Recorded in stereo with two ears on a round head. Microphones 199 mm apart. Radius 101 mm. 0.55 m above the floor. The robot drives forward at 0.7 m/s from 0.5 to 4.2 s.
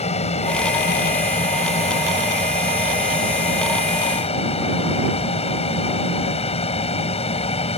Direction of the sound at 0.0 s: 30° left (ahead or behind).